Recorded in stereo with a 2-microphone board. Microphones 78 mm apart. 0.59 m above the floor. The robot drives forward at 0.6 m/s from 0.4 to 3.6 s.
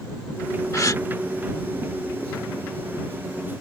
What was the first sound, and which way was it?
A gasp, 45° left (ahead or behind).